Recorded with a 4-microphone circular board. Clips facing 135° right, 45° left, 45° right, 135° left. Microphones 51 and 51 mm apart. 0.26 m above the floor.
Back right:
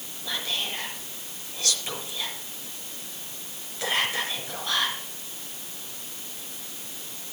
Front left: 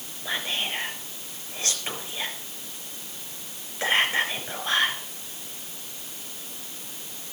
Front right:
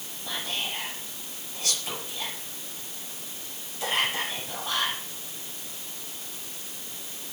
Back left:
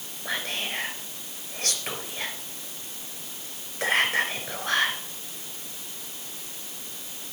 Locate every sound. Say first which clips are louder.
0.2 s whispering: front left 2 dB, back left 2 dB; 105° left, 3.5 m